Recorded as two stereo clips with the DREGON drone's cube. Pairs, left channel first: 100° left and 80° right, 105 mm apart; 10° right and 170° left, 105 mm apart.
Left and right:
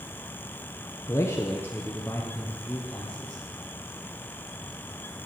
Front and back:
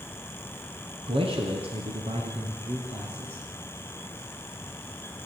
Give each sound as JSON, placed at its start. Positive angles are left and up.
{"t": 1.1, "sound": "a man speaking", "azimuth_deg": 160, "distance_m": 2.5}